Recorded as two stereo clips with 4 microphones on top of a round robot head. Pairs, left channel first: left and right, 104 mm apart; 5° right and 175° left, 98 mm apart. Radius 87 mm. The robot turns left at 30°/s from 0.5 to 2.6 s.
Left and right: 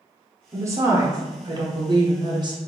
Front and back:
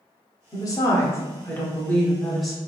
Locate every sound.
0.5 s a woman speaking: 40° right, 1.0 m; by 2.6 s 100° right, 1.0 m